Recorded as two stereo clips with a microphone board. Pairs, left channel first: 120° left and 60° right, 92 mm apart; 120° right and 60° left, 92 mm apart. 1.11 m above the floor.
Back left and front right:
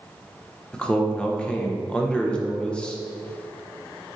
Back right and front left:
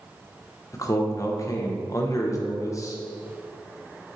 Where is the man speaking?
165° right, 1.1 m.